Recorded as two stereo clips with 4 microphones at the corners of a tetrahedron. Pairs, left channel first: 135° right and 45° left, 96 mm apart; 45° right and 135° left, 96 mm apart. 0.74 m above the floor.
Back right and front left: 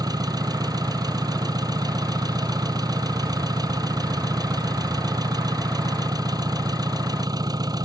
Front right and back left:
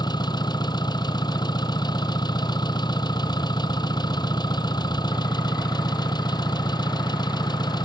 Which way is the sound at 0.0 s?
Straight ahead.